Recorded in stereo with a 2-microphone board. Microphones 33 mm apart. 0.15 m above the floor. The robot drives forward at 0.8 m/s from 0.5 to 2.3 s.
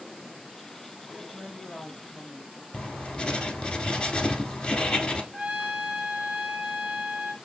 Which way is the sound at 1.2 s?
25° right (ahead or behind).